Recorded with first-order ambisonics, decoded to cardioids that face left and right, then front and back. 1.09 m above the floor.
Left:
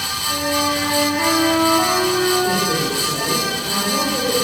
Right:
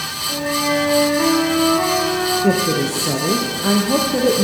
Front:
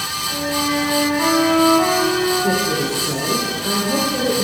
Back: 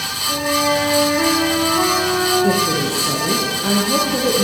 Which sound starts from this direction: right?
A woman speaking, at 2.4 s.